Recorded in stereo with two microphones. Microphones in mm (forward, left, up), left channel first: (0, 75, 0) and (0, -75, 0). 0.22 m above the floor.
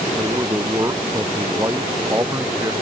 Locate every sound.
0.2 s a man speaking: 20° right (ahead or behind)